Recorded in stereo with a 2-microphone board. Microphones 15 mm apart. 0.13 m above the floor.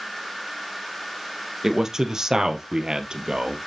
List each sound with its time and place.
1.6 s a man speaking: 40° right (ahead or behind), 3 m; by 3.6 s 65° right (ahead or behind), 2.5 m